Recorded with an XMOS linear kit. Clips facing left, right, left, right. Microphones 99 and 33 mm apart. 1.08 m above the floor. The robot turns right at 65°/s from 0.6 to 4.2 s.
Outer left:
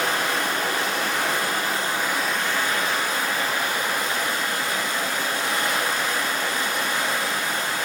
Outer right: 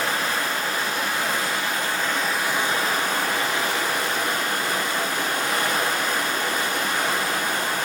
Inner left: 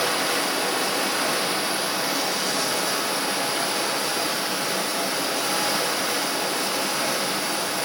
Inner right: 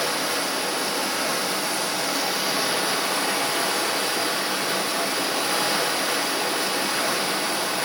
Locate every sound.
0.0 s running water: 70° left, 1.4 m; by 7.9 s 55° right, 1.4 m